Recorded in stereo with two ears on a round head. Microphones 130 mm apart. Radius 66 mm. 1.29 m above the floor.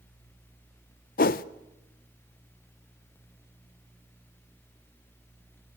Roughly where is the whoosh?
Left.